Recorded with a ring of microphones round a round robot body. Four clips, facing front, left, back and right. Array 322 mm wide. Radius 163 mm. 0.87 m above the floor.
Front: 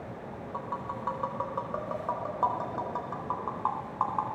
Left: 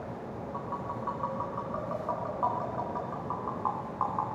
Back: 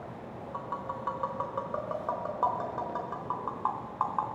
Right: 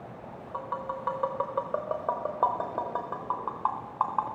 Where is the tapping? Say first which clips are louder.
Right 4 dB, front 1 dB; 100° right, 4.5 m.